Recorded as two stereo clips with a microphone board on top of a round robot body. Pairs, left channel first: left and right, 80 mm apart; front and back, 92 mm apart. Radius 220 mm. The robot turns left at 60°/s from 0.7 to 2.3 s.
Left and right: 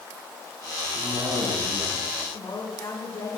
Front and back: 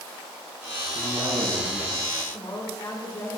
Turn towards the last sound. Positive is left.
turn(degrees=45)